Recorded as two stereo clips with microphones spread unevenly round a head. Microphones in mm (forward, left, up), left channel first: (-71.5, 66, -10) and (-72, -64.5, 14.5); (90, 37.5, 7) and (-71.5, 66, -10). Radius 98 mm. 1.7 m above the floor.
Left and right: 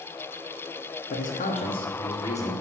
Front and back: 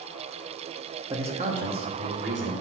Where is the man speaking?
100° left, 0.9 m; by 2.5 s 160° left, 2 m.